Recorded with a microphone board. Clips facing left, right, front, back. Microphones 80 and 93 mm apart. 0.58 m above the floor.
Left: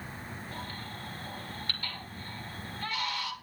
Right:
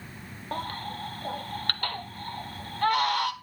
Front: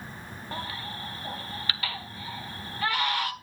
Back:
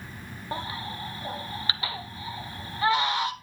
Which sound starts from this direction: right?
A baby crying, at 0.5 s.